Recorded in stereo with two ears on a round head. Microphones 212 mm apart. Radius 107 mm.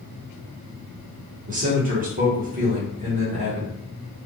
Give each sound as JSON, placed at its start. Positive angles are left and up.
{"t": 1.5, "sound": "a man speaking", "side_deg": -35, "distance_m": 1.3}